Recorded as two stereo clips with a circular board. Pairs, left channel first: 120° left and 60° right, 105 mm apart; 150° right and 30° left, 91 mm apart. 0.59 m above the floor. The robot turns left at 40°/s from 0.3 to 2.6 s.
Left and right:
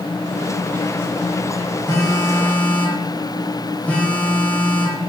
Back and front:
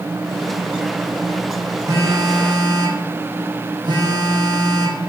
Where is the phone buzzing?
75° left, 0.5 m; by 5.0 s 45° left, 0.5 m.